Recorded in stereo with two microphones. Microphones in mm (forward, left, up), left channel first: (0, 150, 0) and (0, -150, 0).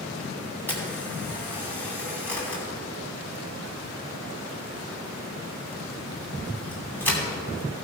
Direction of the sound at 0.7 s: 5° left (ahead or behind).